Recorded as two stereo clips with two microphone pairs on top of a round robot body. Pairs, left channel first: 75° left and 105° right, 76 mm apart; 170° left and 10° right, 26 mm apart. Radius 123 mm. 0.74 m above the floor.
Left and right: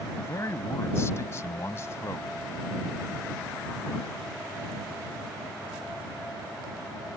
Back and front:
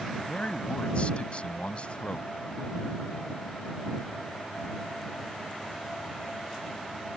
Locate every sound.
0.2 s a man speaking: 130° left